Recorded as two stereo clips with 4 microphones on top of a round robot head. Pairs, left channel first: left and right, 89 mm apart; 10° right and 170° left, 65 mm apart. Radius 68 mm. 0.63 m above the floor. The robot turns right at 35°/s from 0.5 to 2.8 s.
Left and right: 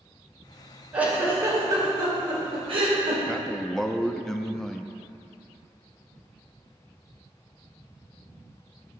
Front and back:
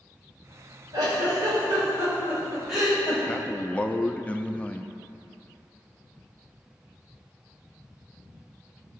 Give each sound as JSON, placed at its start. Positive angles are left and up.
{"t": 0.9, "sound": "a giggle", "azimuth_deg": -165, "distance_m": 2.5}
{"t": 3.3, "sound": "a man speaking", "azimuth_deg": 15, "distance_m": 0.5}